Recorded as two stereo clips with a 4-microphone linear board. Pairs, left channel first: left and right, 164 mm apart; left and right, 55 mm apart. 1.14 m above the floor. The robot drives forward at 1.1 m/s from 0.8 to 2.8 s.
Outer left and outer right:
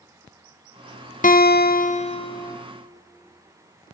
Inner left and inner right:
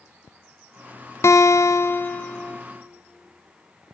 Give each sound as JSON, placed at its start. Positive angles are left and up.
{"t": 1.2, "sound": "a guitar", "side_deg": 55, "distance_m": 0.6}